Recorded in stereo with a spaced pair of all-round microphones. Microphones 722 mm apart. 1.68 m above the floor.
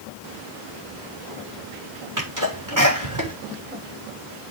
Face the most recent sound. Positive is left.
turn(degrees=-25)  # may be behind; listen again after turning